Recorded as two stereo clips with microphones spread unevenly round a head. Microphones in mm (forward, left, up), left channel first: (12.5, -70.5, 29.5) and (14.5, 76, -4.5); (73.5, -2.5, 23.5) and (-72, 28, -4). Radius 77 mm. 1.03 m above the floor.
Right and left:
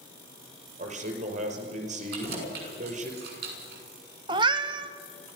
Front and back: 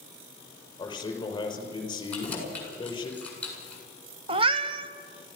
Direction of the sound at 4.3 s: 145° left.